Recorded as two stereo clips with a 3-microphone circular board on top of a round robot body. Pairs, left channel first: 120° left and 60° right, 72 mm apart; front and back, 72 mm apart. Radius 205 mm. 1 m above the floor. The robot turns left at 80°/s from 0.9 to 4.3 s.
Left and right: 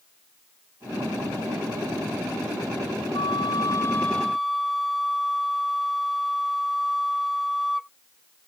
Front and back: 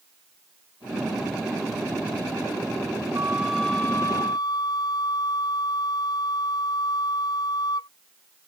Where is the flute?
125° left; by 7.9 s 30° left.